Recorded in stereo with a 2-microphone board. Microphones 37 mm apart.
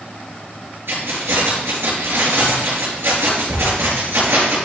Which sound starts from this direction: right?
Keys jangling, at 0.9 s.